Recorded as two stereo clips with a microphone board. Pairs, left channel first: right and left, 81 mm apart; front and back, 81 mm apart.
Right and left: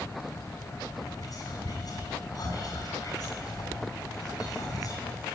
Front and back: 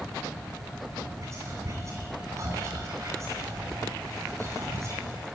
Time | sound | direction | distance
1.2 | whispering | 130° right | 8.5 m